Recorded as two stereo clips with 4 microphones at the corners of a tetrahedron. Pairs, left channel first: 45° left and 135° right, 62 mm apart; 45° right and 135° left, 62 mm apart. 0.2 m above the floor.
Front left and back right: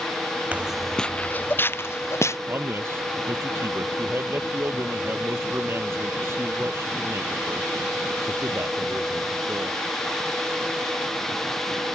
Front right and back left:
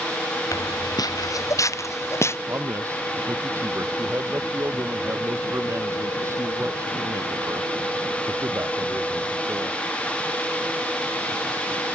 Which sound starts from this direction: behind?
A man speaking, at 2.5 s.